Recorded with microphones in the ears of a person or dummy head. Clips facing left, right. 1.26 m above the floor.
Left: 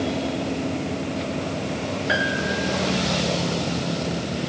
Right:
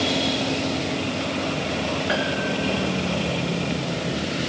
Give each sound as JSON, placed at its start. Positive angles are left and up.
{"t": 2.1, "sound": "a piano", "side_deg": 10, "distance_m": 2.5}